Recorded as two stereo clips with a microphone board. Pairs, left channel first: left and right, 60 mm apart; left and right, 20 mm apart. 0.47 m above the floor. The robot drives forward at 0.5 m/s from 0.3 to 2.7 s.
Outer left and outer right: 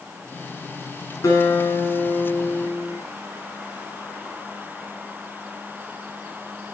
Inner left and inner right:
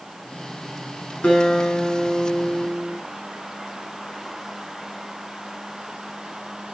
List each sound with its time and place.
1.2 s a guitar: 80° left, 6.5 m; by 3.0 s 75° left (ahead or behind), 6.5 m